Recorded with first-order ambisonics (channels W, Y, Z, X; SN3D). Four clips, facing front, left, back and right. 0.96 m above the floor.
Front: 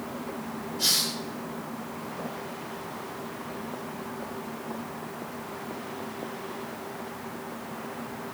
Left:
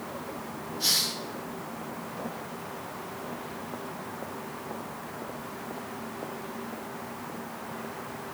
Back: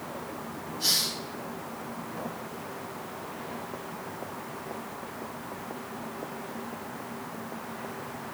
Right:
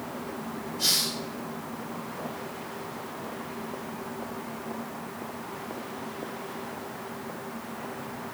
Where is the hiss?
35° right, 2.0 m.